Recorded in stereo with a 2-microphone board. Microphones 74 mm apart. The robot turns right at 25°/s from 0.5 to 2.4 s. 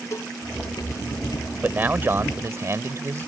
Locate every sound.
0.1 s a cowbell: 40° left (ahead or behind)
1.6 s a man speaking: 25° right (ahead or behind); by 3.3 s 40° right (ahead or behind)